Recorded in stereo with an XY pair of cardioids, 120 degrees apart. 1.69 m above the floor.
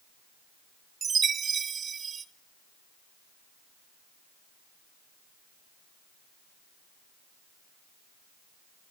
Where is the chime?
40° right, 0.9 m.